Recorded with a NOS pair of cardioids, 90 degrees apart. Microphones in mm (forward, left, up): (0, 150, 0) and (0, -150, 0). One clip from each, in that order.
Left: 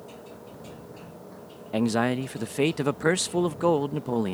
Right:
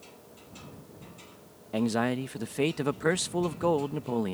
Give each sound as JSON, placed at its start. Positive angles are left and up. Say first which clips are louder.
{"t": 0.0, "sound": "a machine running", "louder": "left 8 dB", "azimuth_deg": 70}
{"t": 1.7, "sound": "a man speaking", "louder": "left 3 dB", "azimuth_deg": 15}